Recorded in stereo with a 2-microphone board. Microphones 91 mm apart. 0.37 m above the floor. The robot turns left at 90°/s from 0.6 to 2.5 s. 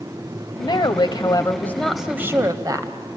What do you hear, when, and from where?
0.6 s a woman speaking: 120° left, 1.5 m; by 3.0 s 50° right, 1.5 m